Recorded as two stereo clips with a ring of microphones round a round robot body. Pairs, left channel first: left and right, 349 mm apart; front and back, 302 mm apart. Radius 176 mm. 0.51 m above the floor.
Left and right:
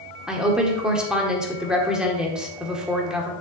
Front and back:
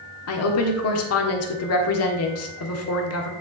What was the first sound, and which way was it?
A woman speaking, 5° right.